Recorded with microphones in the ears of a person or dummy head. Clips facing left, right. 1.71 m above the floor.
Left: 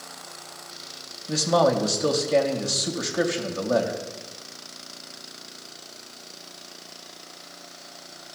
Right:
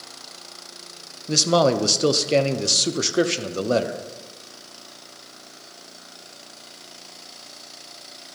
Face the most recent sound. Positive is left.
turn(degrees=-40)  # may be behind; listen again after turning